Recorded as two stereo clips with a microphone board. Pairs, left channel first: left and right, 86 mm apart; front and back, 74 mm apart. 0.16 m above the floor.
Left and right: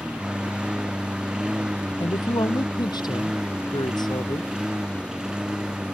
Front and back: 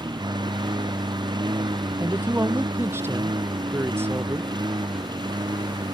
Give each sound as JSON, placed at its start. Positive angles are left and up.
{"t": 0.0, "sound": "a lawn mower", "azimuth_deg": -170}
{"t": 2.0, "sound": "a man speaking", "azimuth_deg": 125}